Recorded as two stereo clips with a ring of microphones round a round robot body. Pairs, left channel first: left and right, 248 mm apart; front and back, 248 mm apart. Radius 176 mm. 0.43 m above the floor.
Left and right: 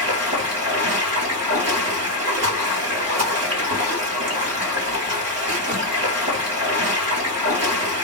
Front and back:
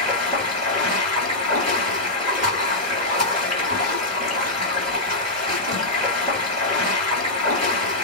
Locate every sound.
0.0 s running water: 110° right, 1.5 m